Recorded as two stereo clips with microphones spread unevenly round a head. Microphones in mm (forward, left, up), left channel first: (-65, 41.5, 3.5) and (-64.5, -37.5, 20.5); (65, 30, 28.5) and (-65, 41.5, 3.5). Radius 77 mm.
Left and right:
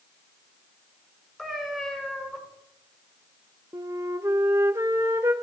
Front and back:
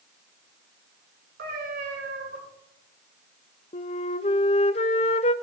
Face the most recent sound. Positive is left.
turn(degrees=-35)